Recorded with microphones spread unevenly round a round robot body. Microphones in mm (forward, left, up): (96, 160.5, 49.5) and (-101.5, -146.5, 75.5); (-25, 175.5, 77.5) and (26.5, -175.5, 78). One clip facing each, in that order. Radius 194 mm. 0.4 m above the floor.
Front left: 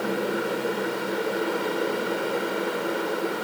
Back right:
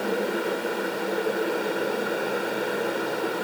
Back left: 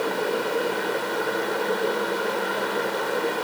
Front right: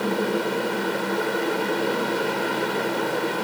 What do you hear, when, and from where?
Only background noise.